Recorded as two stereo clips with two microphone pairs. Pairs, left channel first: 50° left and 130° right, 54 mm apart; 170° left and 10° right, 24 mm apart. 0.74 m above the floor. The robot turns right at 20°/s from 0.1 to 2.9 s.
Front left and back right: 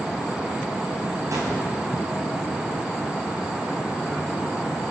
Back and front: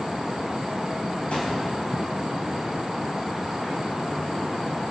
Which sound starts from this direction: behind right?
A gunshot, at 1.3 s.